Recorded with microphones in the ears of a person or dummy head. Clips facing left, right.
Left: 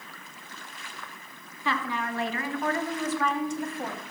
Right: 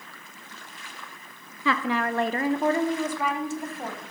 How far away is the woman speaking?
About 0.6 m.